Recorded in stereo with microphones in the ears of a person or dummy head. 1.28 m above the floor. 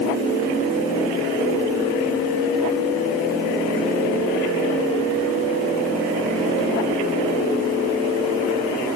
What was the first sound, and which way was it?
Only background noise.